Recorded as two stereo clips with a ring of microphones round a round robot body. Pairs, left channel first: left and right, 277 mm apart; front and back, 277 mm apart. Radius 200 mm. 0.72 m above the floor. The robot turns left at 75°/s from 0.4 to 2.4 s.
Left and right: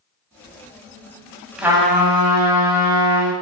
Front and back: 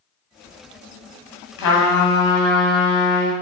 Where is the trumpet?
Straight ahead, 2 m; by 3.3 s 60° right, 2 m.